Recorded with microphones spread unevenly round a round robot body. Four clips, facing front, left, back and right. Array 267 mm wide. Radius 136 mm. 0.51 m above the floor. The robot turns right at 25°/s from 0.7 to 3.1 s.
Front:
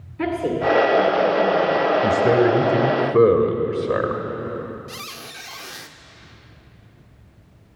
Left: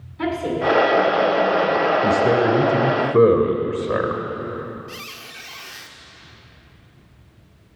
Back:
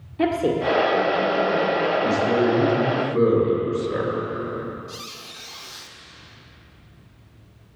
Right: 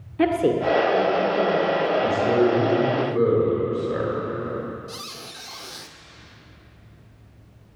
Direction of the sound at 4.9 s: 30° right.